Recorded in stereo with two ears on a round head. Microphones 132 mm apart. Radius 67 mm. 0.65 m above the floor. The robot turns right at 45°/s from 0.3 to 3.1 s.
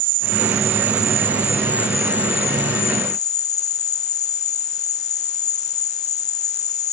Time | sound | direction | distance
0.0 | an insect | 55° right | ?